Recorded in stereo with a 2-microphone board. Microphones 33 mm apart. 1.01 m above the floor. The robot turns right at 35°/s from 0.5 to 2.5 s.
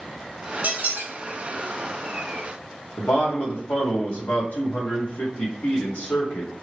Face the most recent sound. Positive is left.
turn(degrees=70)  # may be behind; listen again after turning